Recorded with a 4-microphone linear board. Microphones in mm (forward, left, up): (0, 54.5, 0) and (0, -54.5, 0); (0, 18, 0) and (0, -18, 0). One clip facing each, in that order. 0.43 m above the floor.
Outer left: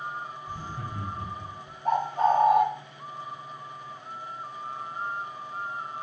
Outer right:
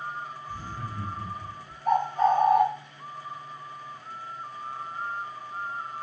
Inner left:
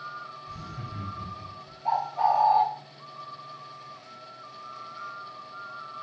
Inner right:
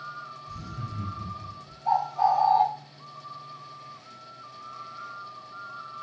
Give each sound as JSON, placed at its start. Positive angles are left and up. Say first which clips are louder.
{"t": 0.5, "sound": "laughter", "louder": "even, inner right 1 dB", "side_deg": 60, "distance_m": 2.0}
{"t": 1.9, "sound": "a bird", "louder": "outer right 1 dB, inner right 1 dB", "side_deg": 45, "distance_m": 1.9}